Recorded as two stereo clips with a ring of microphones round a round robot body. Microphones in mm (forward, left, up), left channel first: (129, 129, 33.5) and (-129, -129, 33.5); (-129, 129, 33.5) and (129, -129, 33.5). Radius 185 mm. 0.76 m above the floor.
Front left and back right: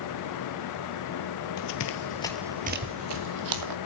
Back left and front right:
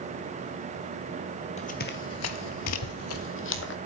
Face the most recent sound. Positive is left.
turn(degrees=-165)